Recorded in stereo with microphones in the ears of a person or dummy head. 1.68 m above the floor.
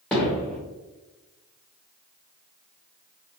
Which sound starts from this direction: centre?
Hammering, at 0.1 s.